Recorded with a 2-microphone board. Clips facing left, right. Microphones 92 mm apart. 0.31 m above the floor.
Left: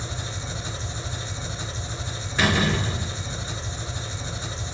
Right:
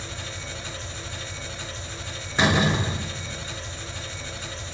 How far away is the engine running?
About 0.8 m.